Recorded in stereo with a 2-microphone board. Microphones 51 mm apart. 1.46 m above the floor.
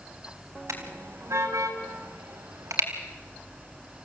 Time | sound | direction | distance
0.7 | a car horn | 70° right (ahead or behind) | 4 m